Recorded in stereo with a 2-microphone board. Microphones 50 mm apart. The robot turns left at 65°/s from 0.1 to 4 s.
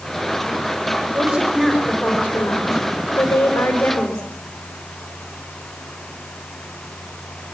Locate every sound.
1.1 s a woman speaking: 135° right, 4.5 m; by 4.2 s 40° left, 4.5 m